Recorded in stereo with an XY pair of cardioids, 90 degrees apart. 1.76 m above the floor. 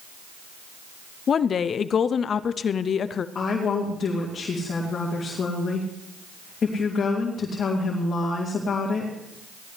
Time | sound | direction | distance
1.3 | a woman speaking | 55° left | 0.5 m
3.4 | a woman speaking | 50° left | 2.5 m